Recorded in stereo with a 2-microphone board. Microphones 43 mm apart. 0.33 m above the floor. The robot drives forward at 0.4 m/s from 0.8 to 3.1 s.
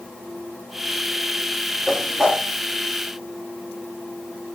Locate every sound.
1.9 s a whoosh: 10° right (ahead or behind), 3 m